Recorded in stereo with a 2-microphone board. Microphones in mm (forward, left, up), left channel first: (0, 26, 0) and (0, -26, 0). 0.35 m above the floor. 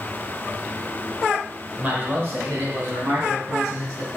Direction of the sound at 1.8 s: 30° right (ahead or behind).